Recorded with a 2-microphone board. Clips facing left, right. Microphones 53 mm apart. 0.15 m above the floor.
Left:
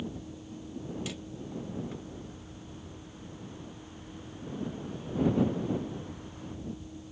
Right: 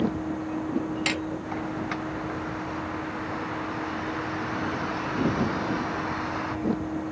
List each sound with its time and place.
0.0 s a vehicle: 85° right
1.1 s hammering: 75° right (ahead or behind)